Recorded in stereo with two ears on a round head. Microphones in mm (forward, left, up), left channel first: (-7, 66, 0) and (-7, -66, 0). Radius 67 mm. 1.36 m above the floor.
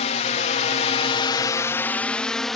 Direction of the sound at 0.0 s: 45° left (ahead or behind).